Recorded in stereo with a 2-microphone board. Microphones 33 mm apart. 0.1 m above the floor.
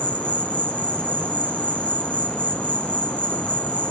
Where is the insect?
40° left (ahead or behind), 3 m.